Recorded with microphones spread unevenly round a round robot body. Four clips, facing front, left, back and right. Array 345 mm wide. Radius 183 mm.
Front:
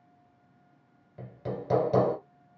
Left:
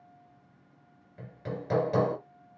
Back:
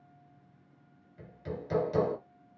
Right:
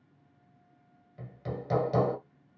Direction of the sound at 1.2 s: 15° left.